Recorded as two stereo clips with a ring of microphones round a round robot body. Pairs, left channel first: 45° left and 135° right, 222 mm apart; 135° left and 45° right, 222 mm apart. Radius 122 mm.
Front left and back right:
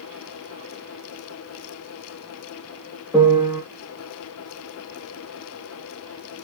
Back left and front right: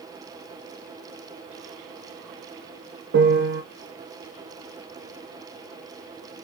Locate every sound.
3.1 s a piano: 50° right, 0.9 m